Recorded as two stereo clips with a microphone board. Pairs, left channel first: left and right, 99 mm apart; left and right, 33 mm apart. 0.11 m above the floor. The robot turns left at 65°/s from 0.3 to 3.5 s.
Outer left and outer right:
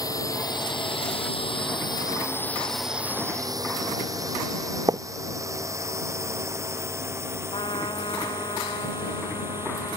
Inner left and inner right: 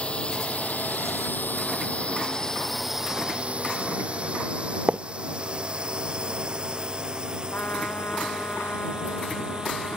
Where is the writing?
40° right (ahead or behind).